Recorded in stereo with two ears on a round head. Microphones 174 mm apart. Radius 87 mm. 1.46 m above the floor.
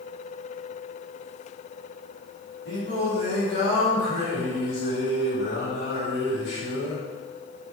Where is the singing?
60° left (ahead or behind), 1.6 m.